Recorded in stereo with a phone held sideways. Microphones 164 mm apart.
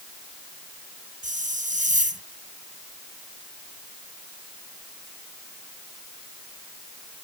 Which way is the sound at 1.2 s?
50° right (ahead or behind).